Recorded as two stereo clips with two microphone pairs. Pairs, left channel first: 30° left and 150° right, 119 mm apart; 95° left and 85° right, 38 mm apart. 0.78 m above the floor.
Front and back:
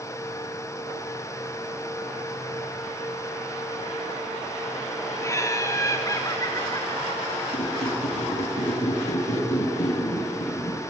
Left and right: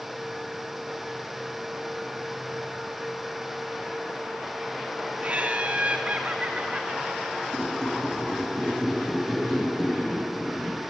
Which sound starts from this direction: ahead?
A squeak, at 7.5 s.